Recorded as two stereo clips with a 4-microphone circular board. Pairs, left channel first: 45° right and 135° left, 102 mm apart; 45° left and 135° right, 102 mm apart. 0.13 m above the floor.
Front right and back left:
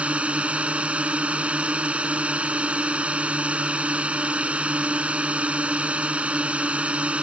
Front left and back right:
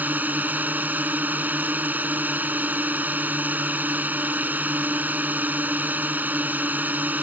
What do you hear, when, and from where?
0.0 s a drone: 170° right